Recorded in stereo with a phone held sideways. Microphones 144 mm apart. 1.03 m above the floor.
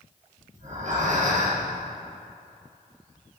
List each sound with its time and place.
0.5 s breathing: 55° right (ahead or behind), 4.5 m